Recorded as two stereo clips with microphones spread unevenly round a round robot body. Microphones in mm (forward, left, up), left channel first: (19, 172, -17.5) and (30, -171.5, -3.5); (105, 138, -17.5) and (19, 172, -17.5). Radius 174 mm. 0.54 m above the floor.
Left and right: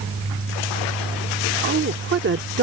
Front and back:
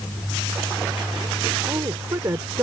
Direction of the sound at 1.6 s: 145° right.